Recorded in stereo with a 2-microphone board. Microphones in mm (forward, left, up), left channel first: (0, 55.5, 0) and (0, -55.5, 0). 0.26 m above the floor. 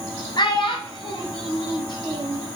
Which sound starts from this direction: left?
A child speaking, at 0.4 s.